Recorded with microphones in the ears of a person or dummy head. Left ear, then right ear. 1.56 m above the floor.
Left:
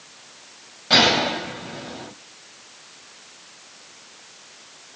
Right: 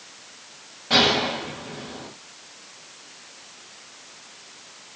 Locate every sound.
0.9 s a gunshot: 25° left (ahead or behind), 2.5 m